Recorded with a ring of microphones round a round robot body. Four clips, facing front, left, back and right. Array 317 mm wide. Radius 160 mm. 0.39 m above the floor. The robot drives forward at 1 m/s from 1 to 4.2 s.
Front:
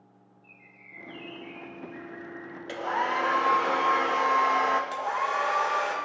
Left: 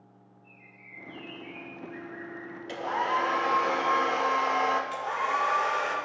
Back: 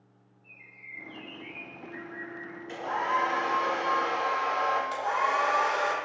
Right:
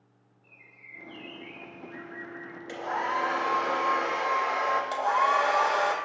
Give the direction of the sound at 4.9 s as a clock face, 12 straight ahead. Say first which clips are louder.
Right 5 dB, back 1 dB; 3 o'clock.